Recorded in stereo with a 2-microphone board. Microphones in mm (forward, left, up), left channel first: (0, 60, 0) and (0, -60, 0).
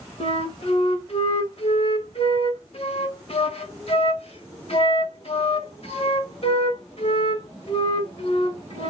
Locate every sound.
0.2 s a flute: 60° left (ahead or behind), 1.3 m